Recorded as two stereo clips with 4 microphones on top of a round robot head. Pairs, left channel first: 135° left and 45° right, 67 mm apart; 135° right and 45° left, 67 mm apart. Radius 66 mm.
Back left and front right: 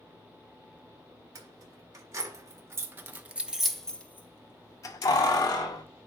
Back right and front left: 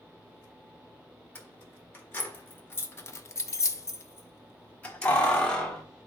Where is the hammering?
No hammering in this recording.